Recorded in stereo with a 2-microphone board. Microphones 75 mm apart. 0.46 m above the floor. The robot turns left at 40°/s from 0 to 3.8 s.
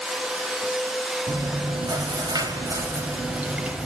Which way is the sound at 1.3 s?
65° right.